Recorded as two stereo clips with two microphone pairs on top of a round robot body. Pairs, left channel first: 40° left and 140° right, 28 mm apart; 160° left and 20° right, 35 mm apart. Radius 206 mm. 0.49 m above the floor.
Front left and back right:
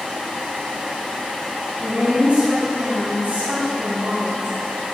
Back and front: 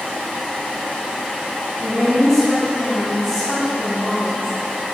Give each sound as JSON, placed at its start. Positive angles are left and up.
{"t": 1.8, "sound": "a woman speaking", "azimuth_deg": -90, "distance_m": 5.0}